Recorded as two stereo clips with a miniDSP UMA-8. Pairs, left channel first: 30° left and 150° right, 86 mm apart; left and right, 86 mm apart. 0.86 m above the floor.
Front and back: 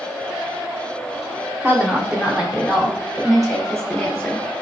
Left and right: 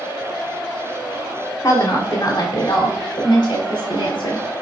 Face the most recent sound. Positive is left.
turn(degrees=105)